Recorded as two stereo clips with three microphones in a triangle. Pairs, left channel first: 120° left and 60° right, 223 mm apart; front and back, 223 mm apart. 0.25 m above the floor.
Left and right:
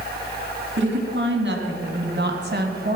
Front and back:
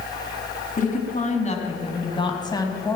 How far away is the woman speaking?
About 3 m.